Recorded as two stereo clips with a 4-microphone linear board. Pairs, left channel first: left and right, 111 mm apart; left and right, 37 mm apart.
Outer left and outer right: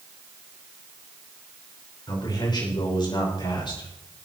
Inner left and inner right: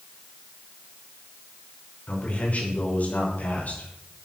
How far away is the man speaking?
About 6 m.